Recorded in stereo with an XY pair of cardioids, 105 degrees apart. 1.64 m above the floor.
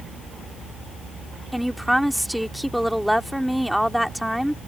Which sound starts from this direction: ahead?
A woman speaking, at 1.5 s.